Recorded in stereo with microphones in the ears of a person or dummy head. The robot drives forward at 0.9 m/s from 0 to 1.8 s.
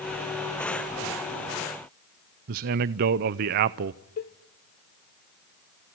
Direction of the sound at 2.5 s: 45° right (ahead or behind).